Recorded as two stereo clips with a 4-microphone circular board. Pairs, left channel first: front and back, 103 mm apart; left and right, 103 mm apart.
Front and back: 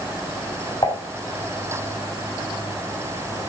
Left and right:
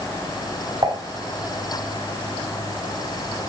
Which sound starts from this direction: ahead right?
Dishes clattering, at 0.8 s.